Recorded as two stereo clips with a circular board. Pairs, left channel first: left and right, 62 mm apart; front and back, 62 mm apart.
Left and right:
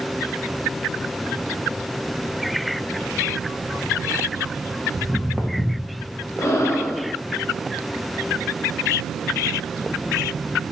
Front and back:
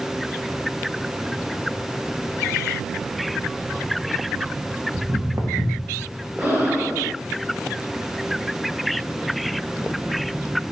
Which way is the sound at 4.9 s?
160° left.